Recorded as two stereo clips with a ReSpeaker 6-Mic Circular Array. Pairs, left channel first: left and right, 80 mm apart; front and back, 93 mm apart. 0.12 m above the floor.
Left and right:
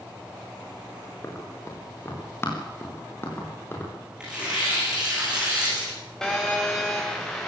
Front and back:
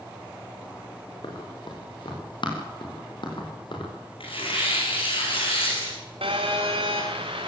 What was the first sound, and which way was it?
Running footsteps, 30° left.